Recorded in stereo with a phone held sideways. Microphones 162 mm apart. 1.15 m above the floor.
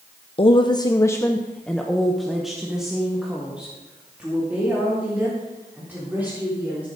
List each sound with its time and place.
0.4 s a woman speaking: 35° left (ahead or behind), 0.6 m; by 6.8 s 10° right (ahead or behind), 4.5 m